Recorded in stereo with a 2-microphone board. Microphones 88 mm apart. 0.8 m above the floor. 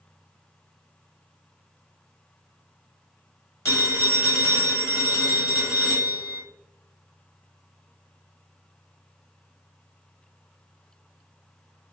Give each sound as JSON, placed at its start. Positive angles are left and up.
{"t": 3.6, "sound": "a phone ringing", "side_deg": 30, "distance_m": 1.6}